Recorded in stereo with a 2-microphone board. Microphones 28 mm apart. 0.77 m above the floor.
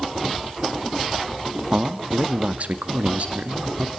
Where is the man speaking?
35° right (ahead or behind), 1.2 m; by 3.9 s 45° right (ahead or behind), 1.7 m.